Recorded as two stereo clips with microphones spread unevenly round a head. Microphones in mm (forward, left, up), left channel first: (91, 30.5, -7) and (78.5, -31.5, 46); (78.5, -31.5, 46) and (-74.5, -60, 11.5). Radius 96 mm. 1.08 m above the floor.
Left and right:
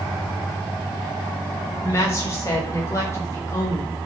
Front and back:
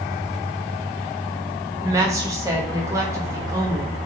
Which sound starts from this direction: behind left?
A woman speaking, at 1.8 s.